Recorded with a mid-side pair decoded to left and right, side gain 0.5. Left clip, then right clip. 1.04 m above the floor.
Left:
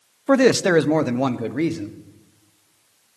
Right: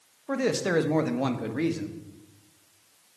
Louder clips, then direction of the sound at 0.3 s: Left 10 dB; 70° left.